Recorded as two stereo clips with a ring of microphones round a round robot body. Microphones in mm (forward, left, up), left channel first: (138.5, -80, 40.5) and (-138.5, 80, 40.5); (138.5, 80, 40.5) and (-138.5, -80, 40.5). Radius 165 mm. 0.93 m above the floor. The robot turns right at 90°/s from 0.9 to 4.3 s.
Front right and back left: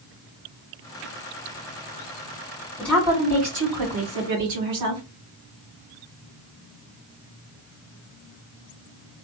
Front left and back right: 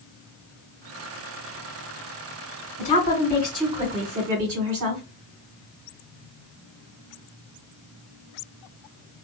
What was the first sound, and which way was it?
A woman speaking, 50° left.